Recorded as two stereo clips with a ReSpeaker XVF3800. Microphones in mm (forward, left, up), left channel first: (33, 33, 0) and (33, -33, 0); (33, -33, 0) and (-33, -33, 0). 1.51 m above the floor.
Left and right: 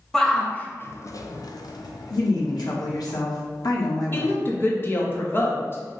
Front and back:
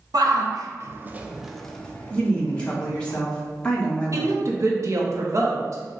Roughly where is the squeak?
I don't hear a squeak.